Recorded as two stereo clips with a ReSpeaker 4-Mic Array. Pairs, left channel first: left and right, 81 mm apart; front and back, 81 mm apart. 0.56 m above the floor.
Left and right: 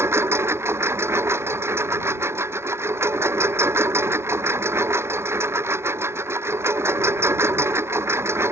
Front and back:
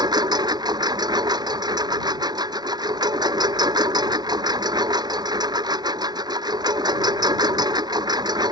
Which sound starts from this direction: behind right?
A lawn mower, at 0.0 s.